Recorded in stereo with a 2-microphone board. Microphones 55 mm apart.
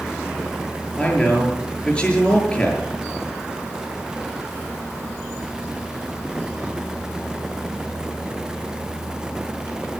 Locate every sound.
1.0 s a man speaking: 20° left (ahead or behind), 7 m